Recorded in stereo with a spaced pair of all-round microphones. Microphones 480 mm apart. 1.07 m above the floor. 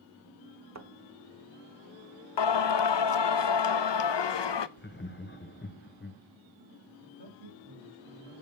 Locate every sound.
0.8 s a thud: 35° right (ahead or behind), 0.9 m
2.4 s singing: 60° left (ahead or behind), 0.5 m
4.8 s laughter: 25° left (ahead or behind), 1.0 m
7.0 s a man speaking: 70° right (ahead or behind), 3 m